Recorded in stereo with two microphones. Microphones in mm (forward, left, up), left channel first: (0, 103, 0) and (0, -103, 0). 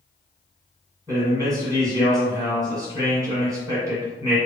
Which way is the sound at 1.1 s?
15° right (ahead or behind).